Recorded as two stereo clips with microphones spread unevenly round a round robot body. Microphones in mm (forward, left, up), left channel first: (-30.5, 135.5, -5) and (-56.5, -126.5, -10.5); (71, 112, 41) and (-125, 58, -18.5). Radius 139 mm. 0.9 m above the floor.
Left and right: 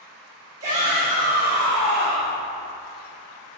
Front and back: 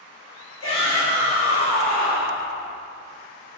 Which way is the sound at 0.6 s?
20° right.